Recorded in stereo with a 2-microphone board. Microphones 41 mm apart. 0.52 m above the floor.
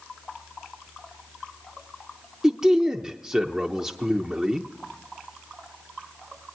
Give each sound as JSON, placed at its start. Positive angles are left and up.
{"t": 2.4, "sound": "a man speaking", "side_deg": -15, "distance_m": 0.8}